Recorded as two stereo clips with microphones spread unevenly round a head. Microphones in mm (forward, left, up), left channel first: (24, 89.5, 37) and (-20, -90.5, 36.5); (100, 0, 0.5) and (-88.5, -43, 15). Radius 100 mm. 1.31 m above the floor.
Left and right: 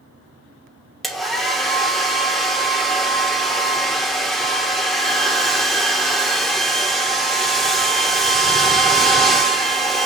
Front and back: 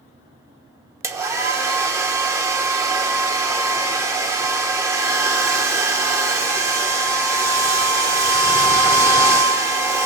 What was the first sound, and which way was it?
A hair dryer, 165° left.